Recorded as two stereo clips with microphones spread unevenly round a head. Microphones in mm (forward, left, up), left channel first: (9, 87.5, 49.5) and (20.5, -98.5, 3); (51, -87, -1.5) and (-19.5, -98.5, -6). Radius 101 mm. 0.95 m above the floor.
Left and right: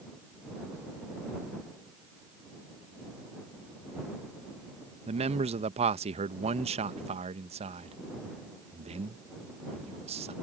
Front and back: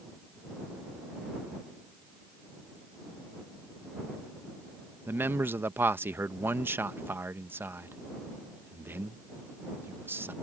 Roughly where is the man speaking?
Behind right.